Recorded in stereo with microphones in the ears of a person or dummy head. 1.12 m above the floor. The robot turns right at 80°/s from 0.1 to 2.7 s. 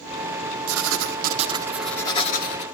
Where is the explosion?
No explosion in this recording.